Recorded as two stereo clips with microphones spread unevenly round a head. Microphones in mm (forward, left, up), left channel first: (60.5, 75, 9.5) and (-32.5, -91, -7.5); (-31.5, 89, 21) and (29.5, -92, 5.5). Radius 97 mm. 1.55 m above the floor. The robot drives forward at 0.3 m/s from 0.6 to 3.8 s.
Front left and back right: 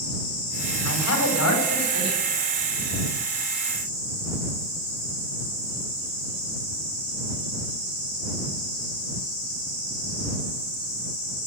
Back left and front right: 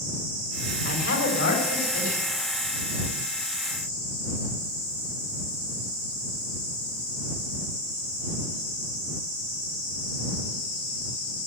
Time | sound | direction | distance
0.8 | a man speaking | 80° left | 6 m